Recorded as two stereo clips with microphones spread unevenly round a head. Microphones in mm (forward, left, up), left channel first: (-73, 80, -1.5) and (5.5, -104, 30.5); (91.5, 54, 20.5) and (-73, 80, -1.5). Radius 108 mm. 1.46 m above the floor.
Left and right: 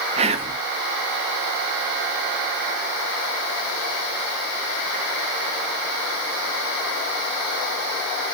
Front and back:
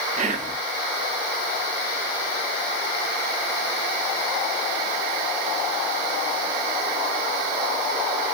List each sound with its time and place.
0.2 s whispering: 130° right, 0.5 m